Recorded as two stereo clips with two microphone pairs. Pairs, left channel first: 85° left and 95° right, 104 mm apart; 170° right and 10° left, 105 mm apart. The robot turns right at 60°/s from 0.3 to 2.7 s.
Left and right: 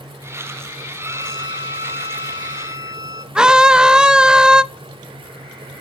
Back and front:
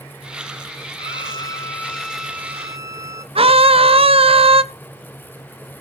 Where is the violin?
150° right, 1.0 m; by 3.2 s 50° right, 1.0 m.